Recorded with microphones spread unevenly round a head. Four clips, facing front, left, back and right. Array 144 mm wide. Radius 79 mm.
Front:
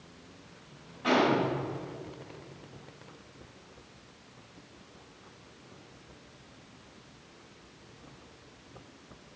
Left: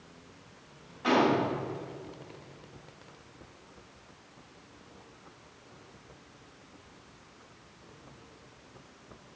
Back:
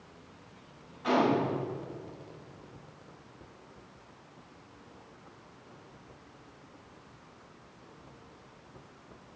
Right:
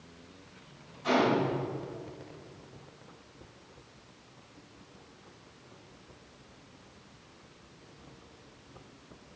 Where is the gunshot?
50° left, 3 m.